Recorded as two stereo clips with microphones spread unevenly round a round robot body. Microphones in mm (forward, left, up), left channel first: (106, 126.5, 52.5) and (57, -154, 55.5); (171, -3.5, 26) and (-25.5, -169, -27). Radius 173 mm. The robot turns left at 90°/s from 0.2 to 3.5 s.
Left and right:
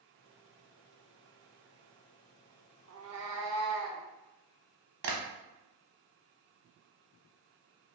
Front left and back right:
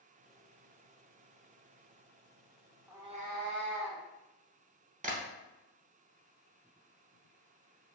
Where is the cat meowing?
60° right, 0.6 m; by 4.0 s 115° right, 0.6 m.